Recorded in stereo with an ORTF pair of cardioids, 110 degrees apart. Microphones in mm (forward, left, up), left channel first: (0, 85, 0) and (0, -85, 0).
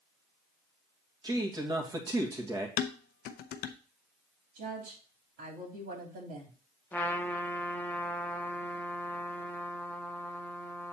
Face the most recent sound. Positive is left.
turn(degrees=10)